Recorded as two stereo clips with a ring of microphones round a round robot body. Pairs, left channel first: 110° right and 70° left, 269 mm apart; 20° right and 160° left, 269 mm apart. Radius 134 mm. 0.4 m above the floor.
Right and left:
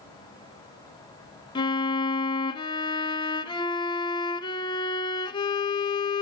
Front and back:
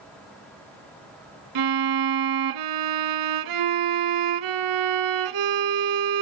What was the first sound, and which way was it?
A violin, 175° left.